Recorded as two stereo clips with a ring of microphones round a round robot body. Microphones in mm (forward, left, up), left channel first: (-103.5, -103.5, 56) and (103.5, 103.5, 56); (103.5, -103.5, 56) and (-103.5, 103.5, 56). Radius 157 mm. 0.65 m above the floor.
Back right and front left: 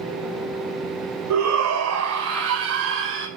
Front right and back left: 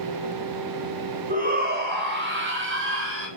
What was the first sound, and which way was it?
A shout, 75° left.